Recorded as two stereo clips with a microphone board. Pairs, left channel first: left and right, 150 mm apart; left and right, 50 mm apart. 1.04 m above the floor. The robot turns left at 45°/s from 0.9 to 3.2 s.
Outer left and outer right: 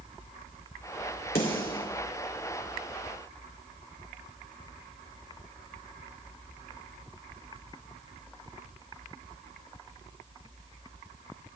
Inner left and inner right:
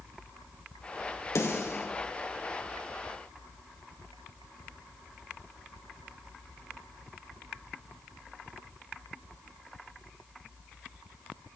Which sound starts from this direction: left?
A snare drum, at 1.4 s.